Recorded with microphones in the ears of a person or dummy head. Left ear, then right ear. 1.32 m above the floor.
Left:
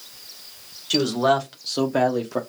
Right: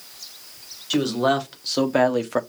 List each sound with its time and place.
0.9 s a man speaking: 15° left (ahead or behind), 1.3 m; by 2.4 s 55° right (ahead or behind), 0.6 m